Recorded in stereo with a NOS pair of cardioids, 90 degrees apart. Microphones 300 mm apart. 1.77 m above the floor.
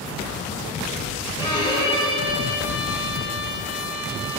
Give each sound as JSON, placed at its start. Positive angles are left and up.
{"t": 1.4, "sound": "a violin", "azimuth_deg": 15, "distance_m": 2.5}